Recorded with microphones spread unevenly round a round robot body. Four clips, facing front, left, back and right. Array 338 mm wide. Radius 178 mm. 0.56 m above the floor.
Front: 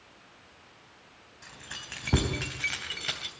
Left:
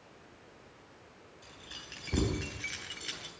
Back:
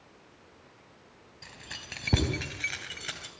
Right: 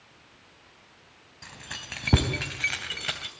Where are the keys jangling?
105° right, 3.5 m; by 3.3 s 75° right, 2.5 m.